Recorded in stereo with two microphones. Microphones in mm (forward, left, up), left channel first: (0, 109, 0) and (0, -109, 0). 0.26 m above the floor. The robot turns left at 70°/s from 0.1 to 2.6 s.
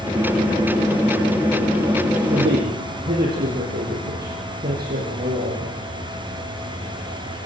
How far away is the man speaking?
About 8.5 m.